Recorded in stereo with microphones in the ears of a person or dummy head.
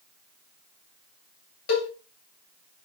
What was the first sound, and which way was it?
A cowbell, 75° left (ahead or behind).